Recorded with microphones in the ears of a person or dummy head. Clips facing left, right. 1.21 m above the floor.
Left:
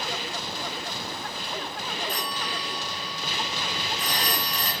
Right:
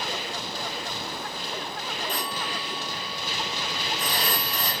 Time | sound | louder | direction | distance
2.1 | a phone ringing | right 1 dB | 50° right (ahead or behind) | 3.5 m